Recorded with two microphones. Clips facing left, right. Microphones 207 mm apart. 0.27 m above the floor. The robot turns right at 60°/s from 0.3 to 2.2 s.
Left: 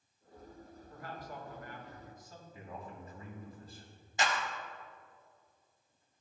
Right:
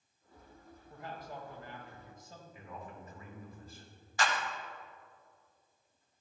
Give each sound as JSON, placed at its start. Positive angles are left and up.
{"t": 0.9, "sound": "a man speaking", "azimuth_deg": -135, "distance_m": 1.4}
{"t": 2.5, "sound": "a man speaking", "side_deg": 30, "distance_m": 1.8}
{"t": 4.2, "sound": "a clap", "side_deg": 20, "distance_m": 0.9}